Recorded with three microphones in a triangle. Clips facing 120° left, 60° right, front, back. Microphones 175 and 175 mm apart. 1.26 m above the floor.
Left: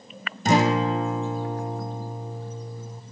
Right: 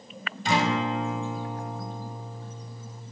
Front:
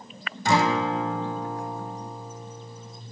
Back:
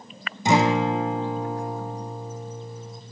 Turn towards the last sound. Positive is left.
turn(degrees=115)